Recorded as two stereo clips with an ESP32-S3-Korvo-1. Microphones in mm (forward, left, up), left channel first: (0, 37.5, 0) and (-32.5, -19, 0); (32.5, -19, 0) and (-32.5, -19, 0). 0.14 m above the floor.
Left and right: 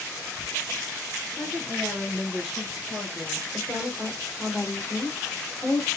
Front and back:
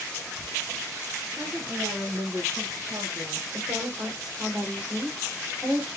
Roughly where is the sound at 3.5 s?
Behind left.